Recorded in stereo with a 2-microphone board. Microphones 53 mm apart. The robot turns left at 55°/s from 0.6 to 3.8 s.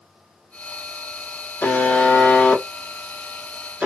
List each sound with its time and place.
1.6 s a buzzer: 70° left, 1.4 m; by 3.9 s 50° right, 1.4 m